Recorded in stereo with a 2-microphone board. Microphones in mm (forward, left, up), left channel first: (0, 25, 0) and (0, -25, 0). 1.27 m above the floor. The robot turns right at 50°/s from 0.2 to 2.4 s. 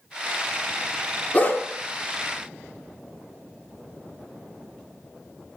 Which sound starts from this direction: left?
A dog barking, at 1.3 s.